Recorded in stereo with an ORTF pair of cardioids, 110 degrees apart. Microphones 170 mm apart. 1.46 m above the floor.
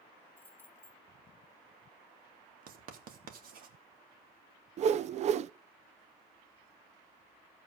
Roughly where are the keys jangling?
Ahead.